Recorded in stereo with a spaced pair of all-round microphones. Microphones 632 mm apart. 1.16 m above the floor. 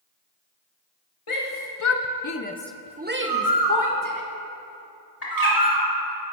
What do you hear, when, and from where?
1.3 s a shout: 55° left (ahead or behind), 1.0 m; by 4.2 s 30° right (ahead or behind), 1.7 m
3.2 s a bird: 35° right (ahead or behind), 1.0 m
5.2 s a bird: 75° left (ahead or behind), 2.5 m